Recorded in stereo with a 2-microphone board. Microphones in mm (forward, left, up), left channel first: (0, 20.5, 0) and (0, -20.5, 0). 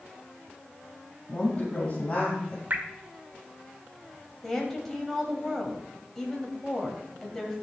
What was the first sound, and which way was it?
A woman speaking, 25° left (ahead or behind).